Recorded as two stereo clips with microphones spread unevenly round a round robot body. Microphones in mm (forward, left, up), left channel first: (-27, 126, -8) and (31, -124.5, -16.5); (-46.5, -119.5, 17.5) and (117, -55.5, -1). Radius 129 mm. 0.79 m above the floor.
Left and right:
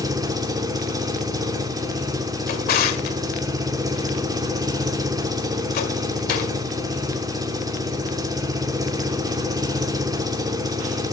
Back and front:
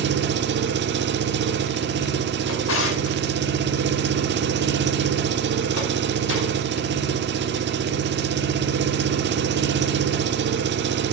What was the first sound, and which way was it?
An engine running, straight ahead.